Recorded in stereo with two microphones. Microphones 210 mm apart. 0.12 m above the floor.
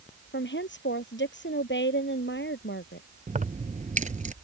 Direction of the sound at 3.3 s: 35° right (ahead or behind).